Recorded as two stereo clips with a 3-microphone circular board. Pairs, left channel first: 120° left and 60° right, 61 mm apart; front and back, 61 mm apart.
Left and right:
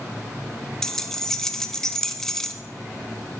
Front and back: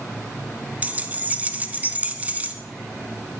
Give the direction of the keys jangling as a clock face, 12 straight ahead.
6 o'clock.